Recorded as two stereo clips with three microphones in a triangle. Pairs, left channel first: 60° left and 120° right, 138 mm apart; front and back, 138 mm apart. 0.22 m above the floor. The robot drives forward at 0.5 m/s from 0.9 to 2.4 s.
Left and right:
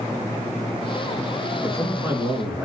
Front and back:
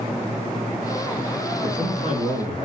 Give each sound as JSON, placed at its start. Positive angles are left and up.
{"t": 1.6, "sound": "a man speaking", "azimuth_deg": 170, "distance_m": 3.0}